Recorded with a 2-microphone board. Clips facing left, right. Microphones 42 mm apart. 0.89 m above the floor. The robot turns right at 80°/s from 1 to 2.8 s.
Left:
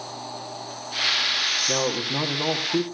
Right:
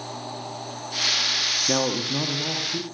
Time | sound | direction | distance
1.7 | a man speaking | 25° right | 1.7 m